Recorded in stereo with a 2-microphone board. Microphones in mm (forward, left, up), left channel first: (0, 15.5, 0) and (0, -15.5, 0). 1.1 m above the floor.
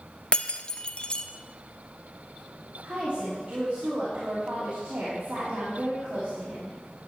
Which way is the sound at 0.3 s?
35° left (ahead or behind).